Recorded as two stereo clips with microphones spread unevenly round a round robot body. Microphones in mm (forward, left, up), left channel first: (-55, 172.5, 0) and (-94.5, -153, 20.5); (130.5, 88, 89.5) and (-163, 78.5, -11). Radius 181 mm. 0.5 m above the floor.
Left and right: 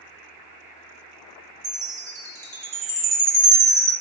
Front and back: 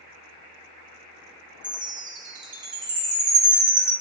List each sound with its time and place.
1.6 s a chime: 175° right, 1.0 m